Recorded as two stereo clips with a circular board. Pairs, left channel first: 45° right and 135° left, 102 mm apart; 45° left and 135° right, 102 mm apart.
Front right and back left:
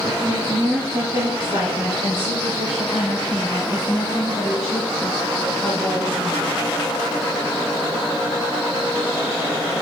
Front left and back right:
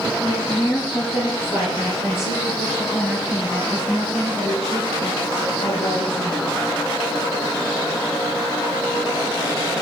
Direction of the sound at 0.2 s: 90° left.